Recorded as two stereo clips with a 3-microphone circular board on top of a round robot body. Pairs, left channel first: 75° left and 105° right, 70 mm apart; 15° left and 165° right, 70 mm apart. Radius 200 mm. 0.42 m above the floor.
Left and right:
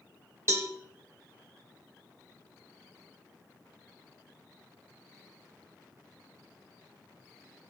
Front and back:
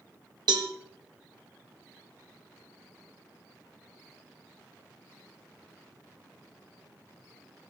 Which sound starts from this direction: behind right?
A cowbell, at 0.5 s.